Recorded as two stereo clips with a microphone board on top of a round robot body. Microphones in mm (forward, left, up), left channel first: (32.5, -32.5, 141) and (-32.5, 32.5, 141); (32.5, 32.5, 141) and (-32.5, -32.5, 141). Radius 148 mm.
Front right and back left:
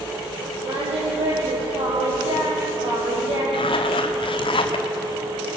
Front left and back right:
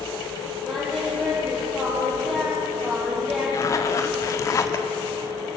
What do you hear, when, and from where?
0.6 s singing: 135° left, 9.5 m
3.5 s a zipper: 15° right, 1.1 m